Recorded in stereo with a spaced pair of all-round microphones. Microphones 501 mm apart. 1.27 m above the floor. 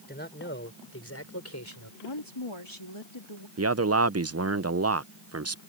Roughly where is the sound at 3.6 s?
Right.